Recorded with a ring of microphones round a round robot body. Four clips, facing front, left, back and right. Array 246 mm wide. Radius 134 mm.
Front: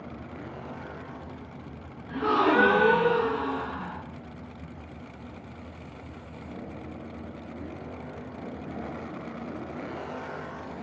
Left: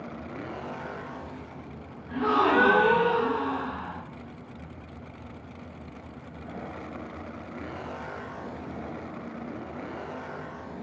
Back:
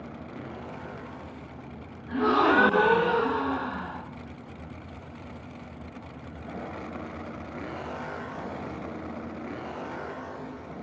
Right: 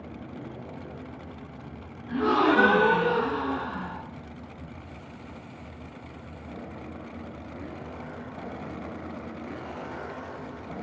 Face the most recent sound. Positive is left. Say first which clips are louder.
# right 1 dB, back 1 dB
turn(degrees=-145)